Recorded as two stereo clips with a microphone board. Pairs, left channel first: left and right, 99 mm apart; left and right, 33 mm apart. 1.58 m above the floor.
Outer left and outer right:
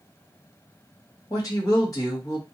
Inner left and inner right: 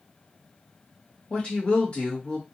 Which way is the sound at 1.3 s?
35° left (ahead or behind).